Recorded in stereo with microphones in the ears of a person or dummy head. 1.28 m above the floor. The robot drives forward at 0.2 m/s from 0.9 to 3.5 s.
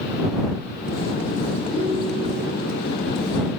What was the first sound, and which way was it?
A ringtone, 20° left (ahead or behind).